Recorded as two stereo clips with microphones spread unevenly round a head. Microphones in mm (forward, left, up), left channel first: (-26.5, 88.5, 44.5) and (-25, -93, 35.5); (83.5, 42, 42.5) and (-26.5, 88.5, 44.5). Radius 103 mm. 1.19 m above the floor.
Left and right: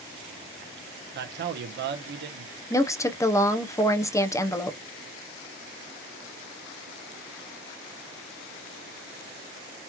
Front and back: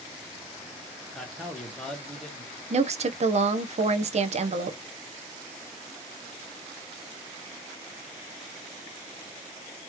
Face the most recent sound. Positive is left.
turn(degrees=165)